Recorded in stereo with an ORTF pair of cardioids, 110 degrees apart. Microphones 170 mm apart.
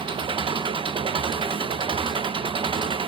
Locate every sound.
0.0 s an engine running: 30° right, 1.1 m